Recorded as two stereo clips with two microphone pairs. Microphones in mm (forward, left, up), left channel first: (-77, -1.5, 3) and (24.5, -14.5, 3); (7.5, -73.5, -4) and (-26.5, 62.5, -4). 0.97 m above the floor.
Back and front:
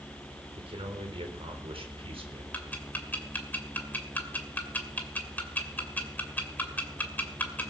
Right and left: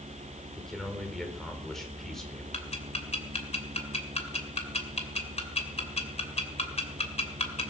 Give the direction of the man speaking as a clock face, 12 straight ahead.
12 o'clock.